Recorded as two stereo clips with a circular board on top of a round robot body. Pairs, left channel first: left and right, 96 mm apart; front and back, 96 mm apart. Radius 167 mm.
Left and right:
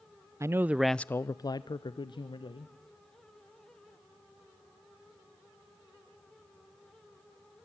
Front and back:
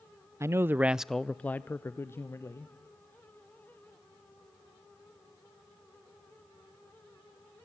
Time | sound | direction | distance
0.4 | a man speaking | 135° right | 0.6 m